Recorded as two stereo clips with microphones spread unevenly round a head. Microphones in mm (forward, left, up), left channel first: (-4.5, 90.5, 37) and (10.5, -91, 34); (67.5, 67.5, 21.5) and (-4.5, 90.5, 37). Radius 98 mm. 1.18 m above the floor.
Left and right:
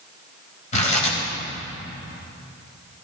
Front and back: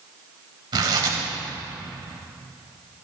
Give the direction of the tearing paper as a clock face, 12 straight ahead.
7 o'clock.